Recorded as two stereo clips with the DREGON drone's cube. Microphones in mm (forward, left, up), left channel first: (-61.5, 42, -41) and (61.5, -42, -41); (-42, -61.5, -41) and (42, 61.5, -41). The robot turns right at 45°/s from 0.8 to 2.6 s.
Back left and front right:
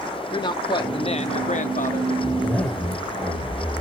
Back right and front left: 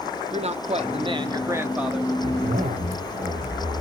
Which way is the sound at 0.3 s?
90° left.